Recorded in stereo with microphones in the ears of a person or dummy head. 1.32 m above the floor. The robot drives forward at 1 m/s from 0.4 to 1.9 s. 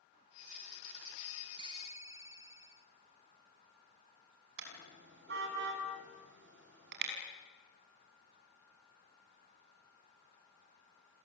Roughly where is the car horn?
Right.